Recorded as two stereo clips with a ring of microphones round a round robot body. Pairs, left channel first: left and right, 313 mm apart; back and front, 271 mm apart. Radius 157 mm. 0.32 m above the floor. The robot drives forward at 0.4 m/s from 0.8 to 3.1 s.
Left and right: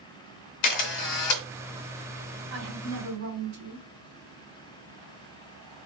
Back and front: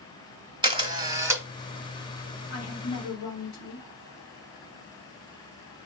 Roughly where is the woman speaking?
Behind right.